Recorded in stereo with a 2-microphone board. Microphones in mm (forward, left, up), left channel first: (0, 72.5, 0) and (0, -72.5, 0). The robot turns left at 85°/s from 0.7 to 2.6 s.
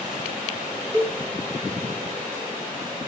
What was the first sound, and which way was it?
A cowbell, 40° right (ahead or behind).